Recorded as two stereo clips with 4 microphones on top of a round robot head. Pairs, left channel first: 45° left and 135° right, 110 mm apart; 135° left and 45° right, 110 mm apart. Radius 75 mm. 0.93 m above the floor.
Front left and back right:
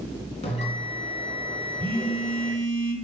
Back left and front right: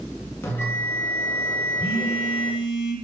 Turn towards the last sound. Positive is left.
turn(degrees=175)